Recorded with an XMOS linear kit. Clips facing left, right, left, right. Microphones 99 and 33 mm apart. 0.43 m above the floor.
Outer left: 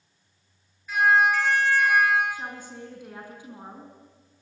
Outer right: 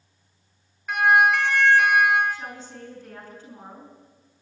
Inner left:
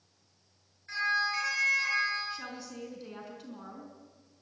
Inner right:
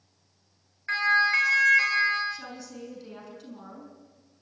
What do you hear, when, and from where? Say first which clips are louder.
0.9 s a siren: outer right 2 dB, inner right 7 dB; 65° right (ahead or behind), 6.5 m
2.3 s a woman speaking: outer right 1 dB, inner right 2 dB; 10° left (ahead or behind), 5.5 m